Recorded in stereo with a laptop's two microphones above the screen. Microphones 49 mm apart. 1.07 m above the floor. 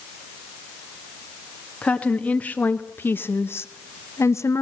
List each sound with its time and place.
1.8 s a woman speaking: 25° left (ahead or behind), 1.7 m; by 4.6 s 70° left (ahead or behind), 1.0 m